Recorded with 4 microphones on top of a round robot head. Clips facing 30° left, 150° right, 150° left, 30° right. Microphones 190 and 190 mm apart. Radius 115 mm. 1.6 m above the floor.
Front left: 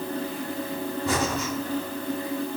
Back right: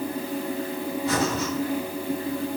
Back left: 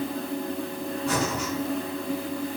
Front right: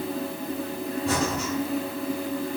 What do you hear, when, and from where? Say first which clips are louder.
1.1 s breathing: back right 2 dB, front right 1 dB; 25° left, 2.5 m